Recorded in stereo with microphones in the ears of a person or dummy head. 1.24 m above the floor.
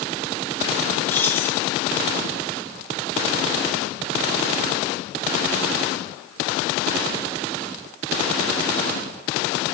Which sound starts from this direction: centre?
Keys jangling, at 1.1 s.